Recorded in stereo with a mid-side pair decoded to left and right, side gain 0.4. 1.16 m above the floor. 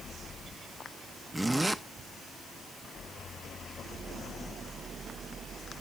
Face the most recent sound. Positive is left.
turn(degrees=-10)